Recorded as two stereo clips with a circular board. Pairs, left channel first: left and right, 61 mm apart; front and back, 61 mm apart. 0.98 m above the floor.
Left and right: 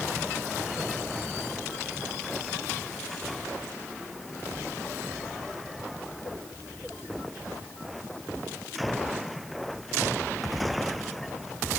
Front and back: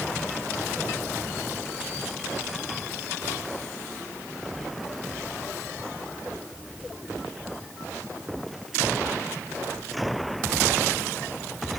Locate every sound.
Only background noise.